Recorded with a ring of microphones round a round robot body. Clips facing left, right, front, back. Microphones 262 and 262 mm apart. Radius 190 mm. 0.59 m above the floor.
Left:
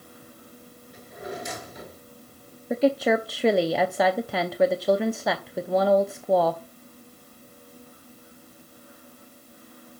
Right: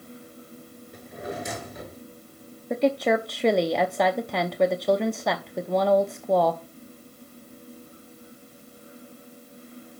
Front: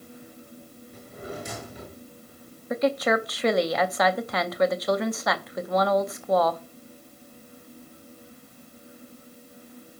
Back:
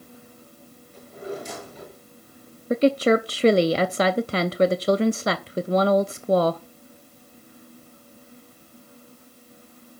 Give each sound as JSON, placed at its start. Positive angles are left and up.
{"t": 0.9, "sound": "a drawer", "azimuth_deg": -55, "distance_m": 6.5}
{"t": 2.7, "sound": "a woman speaking", "azimuth_deg": 175, "distance_m": 0.6}